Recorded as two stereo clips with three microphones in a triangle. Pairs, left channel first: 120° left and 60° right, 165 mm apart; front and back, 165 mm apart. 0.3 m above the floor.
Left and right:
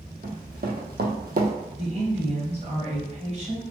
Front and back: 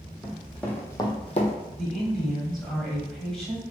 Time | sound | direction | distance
0.2 | running footsteps | 95° right | 1.0 m
1.8 | a woman speaking | 85° right | 1.2 m